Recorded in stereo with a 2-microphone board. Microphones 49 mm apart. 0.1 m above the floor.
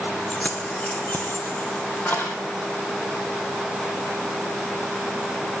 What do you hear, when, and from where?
0.3 s keys jangling: 25° left (ahead or behind), 1.0 m; by 2.4 s 40° left (ahead or behind), 3 m